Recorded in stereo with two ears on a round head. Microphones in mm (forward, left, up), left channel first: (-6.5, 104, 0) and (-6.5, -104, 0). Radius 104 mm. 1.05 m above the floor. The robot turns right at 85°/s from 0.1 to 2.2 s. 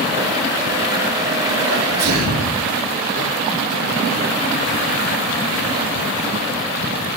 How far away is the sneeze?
About 3 m.